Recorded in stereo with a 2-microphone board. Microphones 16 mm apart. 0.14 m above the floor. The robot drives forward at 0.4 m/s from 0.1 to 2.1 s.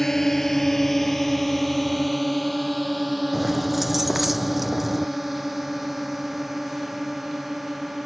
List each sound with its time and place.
0.0 s a drone: 20° left (ahead or behind); by 8.1 s 15° right (ahead or behind)
3.3 s keys jangling: 10° right (ahead or behind)